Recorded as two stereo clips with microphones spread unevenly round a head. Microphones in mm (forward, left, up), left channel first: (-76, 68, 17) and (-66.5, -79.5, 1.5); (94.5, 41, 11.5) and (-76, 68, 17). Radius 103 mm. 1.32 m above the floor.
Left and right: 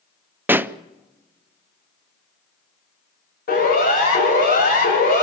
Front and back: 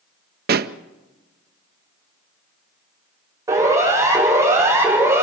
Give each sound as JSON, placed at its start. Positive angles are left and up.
{"t": 0.5, "sound": "a pop", "azimuth_deg": -160, "distance_m": 0.6}
{"t": 3.5, "sound": "a siren", "azimuth_deg": 100, "distance_m": 8.5}